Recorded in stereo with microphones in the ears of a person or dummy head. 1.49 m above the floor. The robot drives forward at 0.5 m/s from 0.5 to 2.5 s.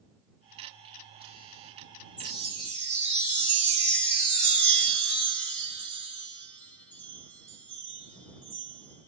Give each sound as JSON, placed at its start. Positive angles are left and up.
{"t": 2.2, "sound": "a chime", "side_deg": 35, "distance_m": 1.7}